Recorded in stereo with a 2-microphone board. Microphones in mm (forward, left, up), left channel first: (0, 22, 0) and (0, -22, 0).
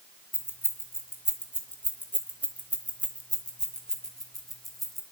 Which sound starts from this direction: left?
Keys jangling, at 0.3 s.